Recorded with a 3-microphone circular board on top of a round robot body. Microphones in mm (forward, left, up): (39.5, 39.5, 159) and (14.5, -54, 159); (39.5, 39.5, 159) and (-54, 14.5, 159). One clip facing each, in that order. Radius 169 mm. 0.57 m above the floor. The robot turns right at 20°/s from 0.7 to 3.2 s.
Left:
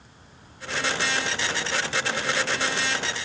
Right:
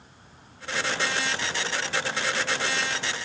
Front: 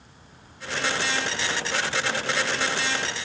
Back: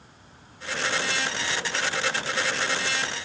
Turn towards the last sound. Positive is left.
No sound to turn to.